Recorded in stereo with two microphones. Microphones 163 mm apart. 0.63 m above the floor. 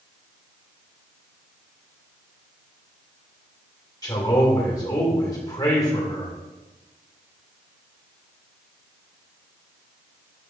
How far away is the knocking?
I don't hear knocking.